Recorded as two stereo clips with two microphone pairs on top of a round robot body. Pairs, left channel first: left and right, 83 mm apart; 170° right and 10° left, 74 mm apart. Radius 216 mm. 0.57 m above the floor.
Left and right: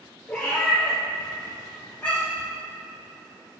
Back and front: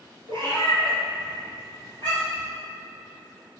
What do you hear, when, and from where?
0.3 s a cat meowing: 10° left, 2 m; by 2.5 s 20° left, 3.5 m